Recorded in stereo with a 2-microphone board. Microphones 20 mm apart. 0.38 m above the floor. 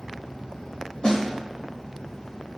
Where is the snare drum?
45° left (ahead or behind), 0.7 m.